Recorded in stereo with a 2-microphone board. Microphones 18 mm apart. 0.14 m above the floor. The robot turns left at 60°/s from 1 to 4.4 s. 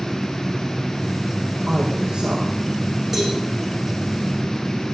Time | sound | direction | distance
1.7 | a woman speaking | 5° right | 5.5 m
3.1 | a cowbell | 15° right (ahead or behind) | 8.5 m